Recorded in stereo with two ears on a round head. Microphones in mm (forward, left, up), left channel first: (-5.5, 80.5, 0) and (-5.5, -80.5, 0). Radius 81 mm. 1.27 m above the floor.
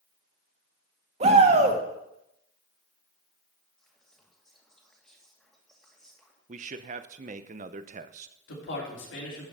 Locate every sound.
1.2 s a shout: 40° right (ahead or behind), 2.0 m
3.8 s whispering: 5° left (ahead or behind), 2 m
6.5 s a man speaking: 45° right (ahead or behind), 0.7 m
8.5 s a man speaking: 75° left (ahead or behind), 4 m